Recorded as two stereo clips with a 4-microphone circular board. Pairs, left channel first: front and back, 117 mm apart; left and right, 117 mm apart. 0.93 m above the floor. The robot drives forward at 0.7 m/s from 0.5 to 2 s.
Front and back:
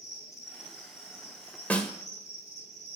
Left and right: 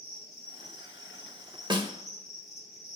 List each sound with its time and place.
0.0 s an insect: 5° right, 4 m
1.7 s a snare drum: 70° right, 0.8 m; by 1.9 s 85° right, 0.7 m